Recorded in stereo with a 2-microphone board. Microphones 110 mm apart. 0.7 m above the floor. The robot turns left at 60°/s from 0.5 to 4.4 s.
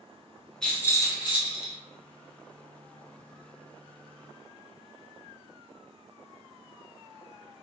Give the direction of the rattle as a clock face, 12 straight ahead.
6 o'clock.